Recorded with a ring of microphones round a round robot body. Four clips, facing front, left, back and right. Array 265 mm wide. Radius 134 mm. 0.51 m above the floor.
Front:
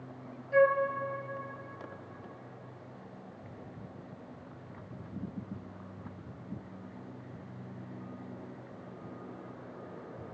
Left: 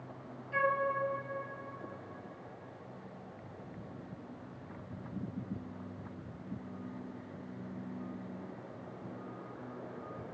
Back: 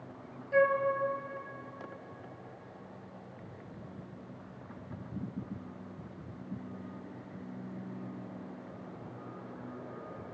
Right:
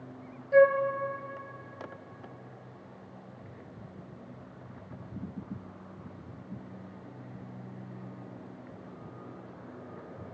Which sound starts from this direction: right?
A flute, at 0.5 s.